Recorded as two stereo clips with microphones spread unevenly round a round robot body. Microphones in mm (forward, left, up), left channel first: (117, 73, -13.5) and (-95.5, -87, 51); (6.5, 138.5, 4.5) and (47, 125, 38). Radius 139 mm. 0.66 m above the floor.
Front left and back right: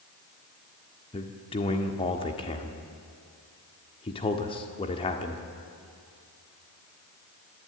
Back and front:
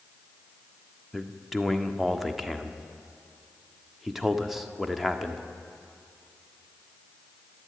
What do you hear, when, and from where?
1.1 s a man speaking: 95° left, 1.6 m